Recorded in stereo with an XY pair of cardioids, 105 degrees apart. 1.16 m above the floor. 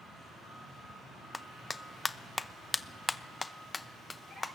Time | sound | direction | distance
1.3 | a clap | 20° left | 0.7 m